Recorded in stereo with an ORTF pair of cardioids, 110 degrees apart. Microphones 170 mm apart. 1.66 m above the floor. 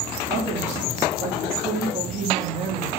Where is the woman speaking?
40° right, 2.0 m.